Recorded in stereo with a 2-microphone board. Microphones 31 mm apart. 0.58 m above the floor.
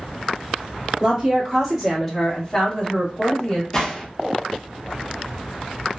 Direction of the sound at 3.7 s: 15° left (ahead or behind).